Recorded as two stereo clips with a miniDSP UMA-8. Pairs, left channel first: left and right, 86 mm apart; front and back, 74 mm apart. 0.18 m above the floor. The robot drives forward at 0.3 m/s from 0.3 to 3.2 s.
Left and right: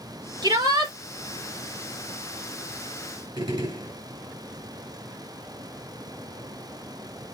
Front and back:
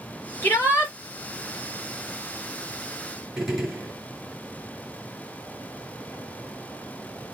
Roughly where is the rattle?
I don't hear a rattle.